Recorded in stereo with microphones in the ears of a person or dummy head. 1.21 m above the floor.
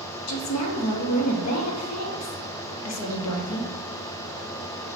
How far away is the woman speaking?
About 0.8 m.